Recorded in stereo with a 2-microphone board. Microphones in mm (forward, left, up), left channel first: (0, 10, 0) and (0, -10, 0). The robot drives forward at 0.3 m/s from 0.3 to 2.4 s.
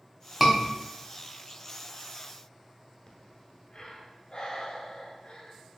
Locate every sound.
0.4 s a scream: 10° right (ahead or behind), 1.2 m
3.1 s breathing: 60° left (ahead or behind), 1.1 m